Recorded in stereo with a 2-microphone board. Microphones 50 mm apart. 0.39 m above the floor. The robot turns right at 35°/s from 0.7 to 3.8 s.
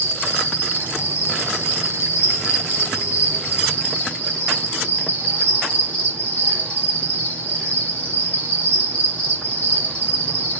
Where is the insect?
50° left, 7 m; by 10.6 s 155° left, 7 m.